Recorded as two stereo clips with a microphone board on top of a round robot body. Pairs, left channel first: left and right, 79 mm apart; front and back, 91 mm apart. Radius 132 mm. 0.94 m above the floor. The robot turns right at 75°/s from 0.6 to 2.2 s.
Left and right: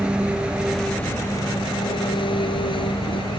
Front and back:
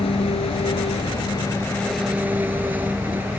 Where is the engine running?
10° right; by 3.4 s 110° left.